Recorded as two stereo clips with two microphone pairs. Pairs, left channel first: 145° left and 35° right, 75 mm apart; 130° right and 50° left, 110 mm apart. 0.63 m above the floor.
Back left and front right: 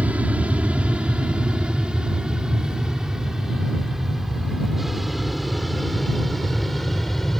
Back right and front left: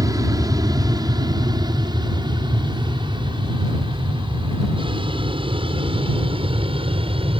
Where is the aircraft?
25° left; by 7.4 s 60° left.